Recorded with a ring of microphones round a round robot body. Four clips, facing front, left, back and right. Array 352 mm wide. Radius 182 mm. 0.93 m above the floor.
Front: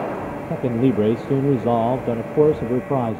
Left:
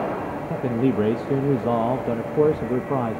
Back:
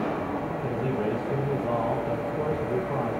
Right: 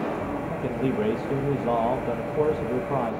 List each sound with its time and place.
0.5 s a man speaking: 20° left, 0.8 m